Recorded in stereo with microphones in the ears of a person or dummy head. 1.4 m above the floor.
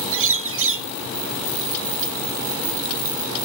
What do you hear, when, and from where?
0.1 s a bird: 70° right (ahead or behind)